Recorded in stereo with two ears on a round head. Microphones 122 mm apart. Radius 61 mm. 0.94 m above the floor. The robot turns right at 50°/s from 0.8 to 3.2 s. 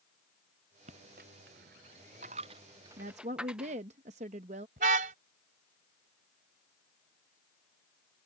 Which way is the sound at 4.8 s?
65° right (ahead or behind).